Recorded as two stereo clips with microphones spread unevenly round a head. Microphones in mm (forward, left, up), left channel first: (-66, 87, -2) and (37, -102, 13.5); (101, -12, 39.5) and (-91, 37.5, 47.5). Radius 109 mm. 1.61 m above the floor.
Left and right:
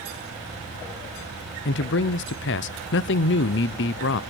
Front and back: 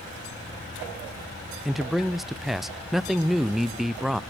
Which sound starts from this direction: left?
A man speaking, at 1.6 s.